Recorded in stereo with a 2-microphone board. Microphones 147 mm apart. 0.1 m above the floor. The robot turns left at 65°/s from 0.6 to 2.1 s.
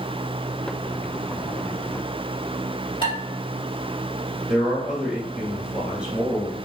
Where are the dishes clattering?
30° left (ahead or behind), 1.6 m.